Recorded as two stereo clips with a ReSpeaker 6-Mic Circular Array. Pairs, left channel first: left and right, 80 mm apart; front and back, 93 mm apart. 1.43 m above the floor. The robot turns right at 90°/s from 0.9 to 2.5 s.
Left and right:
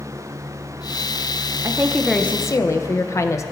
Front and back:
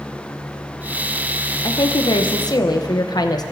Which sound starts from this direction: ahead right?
A woman speaking, at 1.6 s.